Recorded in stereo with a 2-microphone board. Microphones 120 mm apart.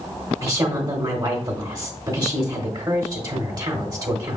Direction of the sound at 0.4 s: 35° right (ahead or behind).